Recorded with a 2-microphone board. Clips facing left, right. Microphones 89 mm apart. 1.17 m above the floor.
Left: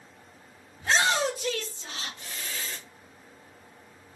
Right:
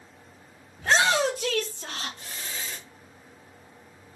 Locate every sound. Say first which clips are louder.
0.8 s a shout: right 3 dB; 70° right (ahead or behind), 1.0 m; by 2.8 s 15° right (ahead or behind), 0.8 m